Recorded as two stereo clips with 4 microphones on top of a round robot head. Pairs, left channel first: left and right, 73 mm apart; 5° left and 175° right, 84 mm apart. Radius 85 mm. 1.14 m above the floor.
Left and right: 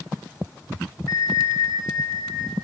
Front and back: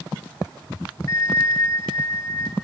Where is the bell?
55° left, 0.9 m.